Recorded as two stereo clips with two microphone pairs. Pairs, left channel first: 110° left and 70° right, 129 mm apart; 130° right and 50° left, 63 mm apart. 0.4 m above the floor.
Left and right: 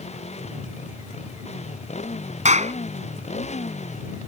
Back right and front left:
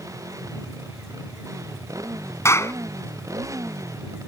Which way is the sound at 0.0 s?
80° left.